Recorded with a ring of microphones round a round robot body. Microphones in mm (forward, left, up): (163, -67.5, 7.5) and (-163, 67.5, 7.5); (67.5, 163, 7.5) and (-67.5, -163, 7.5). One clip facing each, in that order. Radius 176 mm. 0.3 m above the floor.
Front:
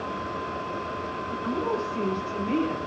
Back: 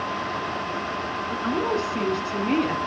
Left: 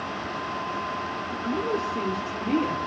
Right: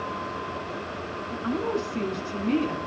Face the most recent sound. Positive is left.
turn(degrees=165)